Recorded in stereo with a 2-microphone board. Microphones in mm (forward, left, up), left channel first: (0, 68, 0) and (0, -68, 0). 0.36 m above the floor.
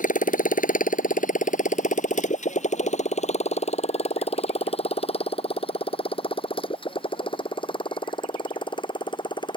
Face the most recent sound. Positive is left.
turn(degrees=35)  # may be behind; listen again after turning